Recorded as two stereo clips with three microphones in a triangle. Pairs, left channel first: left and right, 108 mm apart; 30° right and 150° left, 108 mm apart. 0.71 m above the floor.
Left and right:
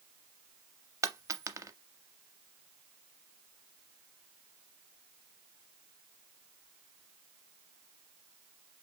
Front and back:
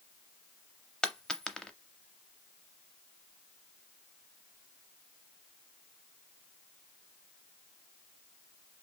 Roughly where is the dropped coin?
Right.